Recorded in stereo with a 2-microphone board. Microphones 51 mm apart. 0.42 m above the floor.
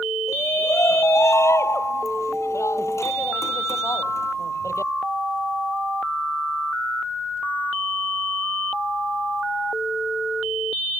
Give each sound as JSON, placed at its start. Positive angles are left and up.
{"t": 0.3, "sound": "a shout", "side_deg": 75}